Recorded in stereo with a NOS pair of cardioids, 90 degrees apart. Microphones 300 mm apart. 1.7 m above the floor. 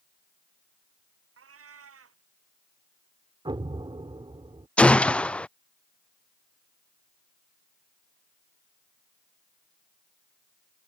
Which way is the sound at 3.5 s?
15° right.